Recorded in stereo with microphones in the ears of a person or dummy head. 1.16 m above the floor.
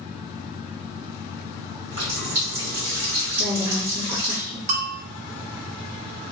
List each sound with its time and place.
1.9 s a running tap: 60° right (ahead or behind), 1.9 m
3.4 s a woman speaking: 50° right (ahead or behind), 1.6 m
4.7 s a bell: 35° right (ahead or behind), 0.5 m